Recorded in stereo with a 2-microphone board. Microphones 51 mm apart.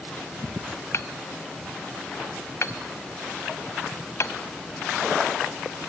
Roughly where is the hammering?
Left.